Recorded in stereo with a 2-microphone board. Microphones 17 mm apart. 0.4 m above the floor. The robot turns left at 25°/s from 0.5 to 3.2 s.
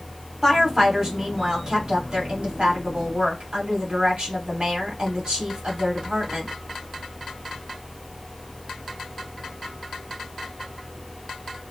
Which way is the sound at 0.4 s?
25° right.